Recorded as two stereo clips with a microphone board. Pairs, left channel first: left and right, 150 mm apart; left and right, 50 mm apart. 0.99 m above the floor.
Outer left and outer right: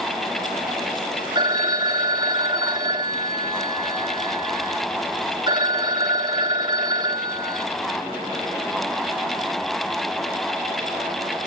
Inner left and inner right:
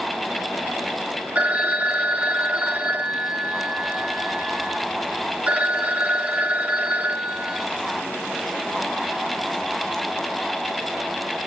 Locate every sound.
1.4 s a phone ringing: 30° right (ahead or behind), 1.2 m